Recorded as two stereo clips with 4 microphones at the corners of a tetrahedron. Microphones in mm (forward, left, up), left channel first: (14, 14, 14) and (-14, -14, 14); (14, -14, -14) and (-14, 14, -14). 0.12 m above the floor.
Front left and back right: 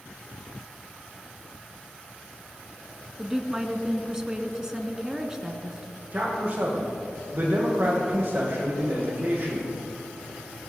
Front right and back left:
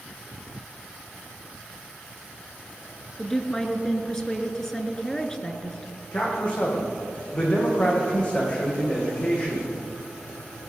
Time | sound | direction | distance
3.2 | a woman speaking | 100° right | 1.1 m
6.1 | a man speaking | 100° right | 5 m